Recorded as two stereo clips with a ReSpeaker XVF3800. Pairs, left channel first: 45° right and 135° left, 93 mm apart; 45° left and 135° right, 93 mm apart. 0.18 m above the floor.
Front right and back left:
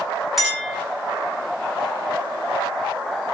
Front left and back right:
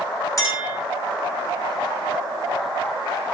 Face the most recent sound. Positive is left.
turn(degrees=45)